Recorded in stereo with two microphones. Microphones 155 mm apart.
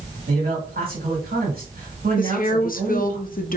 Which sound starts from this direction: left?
A woman speaking, at 2.2 s.